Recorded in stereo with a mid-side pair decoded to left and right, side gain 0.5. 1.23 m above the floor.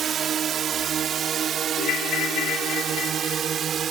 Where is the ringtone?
70° left.